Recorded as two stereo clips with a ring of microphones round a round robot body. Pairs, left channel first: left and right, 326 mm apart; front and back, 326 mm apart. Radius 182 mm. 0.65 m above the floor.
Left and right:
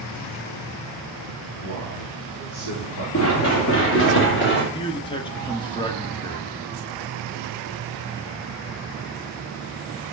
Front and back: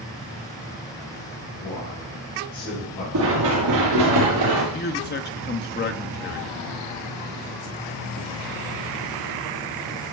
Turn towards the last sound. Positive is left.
turn(degrees=25)